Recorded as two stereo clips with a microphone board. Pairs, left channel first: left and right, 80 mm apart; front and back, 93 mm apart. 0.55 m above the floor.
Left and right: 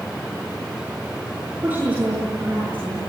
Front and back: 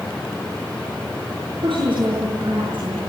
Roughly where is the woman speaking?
Behind right.